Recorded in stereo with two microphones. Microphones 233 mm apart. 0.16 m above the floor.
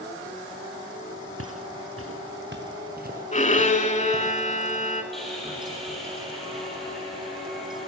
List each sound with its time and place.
1.4 s footsteps: 70° right (ahead or behind), 0.8 m; by 4.3 s 25° right (ahead or behind), 3 m
3.3 s a violin: 30° left (ahead or behind), 1.2 m
5.1 s sawing: centre (ahead or behind), 5 m